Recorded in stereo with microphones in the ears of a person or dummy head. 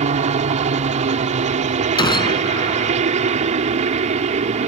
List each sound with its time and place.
0.0 s a helicopter: 35° right (ahead or behind)
2.0 s a gunshot: 25° left (ahead or behind)